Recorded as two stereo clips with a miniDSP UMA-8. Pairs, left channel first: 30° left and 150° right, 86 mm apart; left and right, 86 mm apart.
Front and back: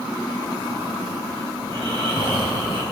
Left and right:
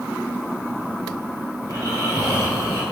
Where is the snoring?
135° right, 3.5 m.